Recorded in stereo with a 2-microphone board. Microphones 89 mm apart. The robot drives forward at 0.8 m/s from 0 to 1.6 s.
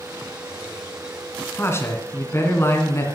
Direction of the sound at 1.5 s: 30° left (ahead or behind).